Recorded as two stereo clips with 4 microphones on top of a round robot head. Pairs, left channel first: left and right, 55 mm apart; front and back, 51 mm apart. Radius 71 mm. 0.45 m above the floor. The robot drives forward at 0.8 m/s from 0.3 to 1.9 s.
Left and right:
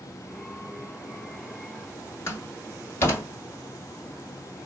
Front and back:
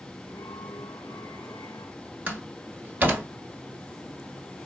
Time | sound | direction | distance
2.3 | a door slam | 135° left | 1.7 m